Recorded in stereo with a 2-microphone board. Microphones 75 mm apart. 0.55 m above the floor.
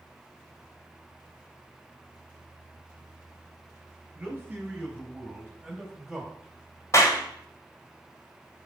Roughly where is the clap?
Left.